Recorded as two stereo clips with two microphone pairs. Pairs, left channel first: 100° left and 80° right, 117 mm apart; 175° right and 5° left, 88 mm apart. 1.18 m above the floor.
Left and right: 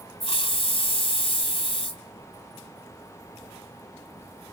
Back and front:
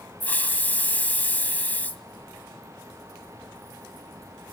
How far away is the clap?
No clap in this recording.